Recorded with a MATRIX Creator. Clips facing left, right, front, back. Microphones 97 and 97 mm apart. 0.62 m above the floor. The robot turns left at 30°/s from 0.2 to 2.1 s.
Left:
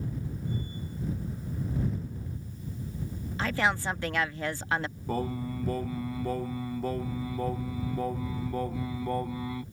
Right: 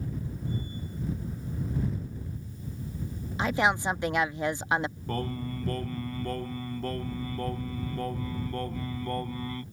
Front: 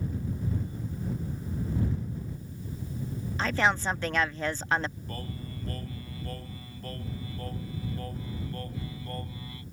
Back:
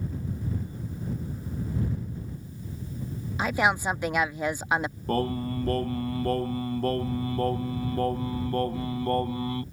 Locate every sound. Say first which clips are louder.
3.4 s a woman speaking: right 3 dB, back 2 dB; 120° right
5.1 s singing: left 6 dB, back 13 dB; 170° left